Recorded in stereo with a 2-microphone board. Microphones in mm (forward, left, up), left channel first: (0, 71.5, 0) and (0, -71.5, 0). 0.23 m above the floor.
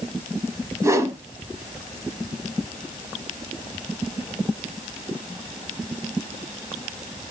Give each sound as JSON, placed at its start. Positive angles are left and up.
{"t": 0.8, "sound": "a whoosh", "side_deg": -20, "distance_m": 0.9}